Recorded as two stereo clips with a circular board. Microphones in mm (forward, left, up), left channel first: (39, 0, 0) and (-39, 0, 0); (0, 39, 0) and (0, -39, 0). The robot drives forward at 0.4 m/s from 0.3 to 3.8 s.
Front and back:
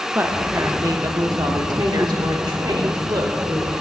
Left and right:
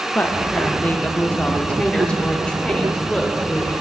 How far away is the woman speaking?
About 0.6 m.